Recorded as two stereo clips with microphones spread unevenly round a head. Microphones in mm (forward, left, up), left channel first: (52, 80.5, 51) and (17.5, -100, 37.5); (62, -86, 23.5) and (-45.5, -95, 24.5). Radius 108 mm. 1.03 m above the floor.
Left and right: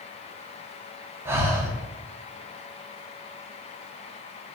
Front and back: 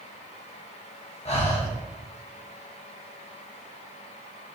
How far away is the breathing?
About 1.2 m.